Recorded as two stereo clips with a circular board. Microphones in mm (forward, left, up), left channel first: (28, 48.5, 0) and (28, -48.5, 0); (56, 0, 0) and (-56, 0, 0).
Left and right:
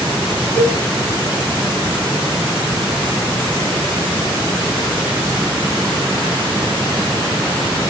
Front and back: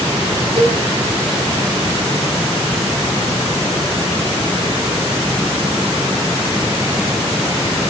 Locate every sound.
0.6 s a cowbell: 165° left, 5 m